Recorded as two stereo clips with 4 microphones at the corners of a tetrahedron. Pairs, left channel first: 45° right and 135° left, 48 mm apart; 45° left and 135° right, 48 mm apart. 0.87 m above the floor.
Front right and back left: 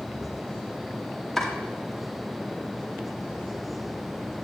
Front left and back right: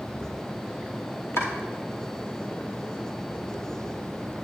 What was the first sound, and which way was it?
Chopping, 40° left.